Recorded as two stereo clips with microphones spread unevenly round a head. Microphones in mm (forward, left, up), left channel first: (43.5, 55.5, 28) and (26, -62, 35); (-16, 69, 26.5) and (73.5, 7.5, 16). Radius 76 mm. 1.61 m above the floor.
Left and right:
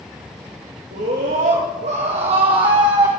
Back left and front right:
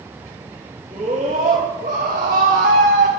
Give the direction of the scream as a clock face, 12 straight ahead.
3 o'clock.